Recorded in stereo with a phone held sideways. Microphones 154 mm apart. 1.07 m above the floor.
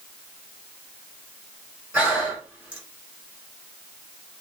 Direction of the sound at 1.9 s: 10° right (ahead or behind).